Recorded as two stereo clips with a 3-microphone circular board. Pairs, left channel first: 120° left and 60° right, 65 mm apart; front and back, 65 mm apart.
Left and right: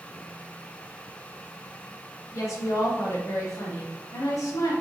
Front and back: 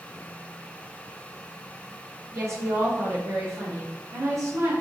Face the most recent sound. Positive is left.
turn(degrees=145)